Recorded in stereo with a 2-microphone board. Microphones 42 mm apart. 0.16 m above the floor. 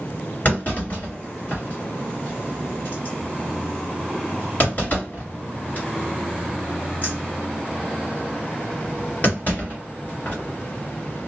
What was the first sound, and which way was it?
A clunk, 45° left (ahead or behind).